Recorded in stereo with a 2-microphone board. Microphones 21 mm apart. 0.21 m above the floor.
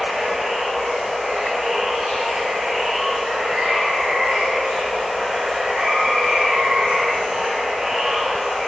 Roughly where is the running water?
Right.